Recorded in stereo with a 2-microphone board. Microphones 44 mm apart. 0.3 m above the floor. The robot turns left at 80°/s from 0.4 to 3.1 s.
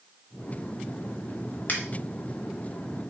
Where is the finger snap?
45° left (ahead or behind), 1.1 m.